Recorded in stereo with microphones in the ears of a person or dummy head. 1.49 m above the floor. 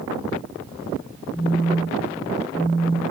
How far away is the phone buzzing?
About 1.8 m.